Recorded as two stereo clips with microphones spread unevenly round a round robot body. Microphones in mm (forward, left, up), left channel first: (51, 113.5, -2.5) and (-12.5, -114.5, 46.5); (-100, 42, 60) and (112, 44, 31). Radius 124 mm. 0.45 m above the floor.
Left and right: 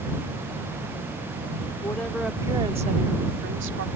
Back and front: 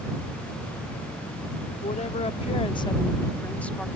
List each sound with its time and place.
1.8 s a woman speaking: 130° left; by 3.9 s 85° right